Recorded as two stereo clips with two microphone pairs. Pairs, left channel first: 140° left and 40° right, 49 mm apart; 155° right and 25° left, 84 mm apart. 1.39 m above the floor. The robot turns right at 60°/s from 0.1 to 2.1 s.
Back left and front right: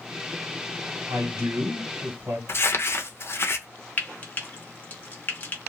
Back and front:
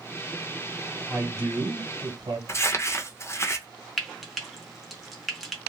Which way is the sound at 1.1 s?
55° right.